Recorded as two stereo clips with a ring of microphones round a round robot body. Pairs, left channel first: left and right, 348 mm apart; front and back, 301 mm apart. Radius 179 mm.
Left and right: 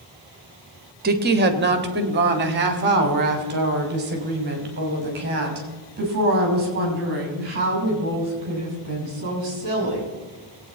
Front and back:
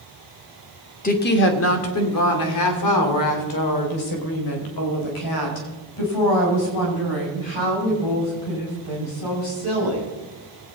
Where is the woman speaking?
45° right, 1.3 m; by 10.1 s 25° right, 9.5 m.